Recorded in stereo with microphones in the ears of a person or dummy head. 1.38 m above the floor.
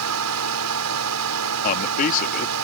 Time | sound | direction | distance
0.0 | a fan | 85° right | ?
1.6 | a man speaking | 40° left (ahead or behind) | ?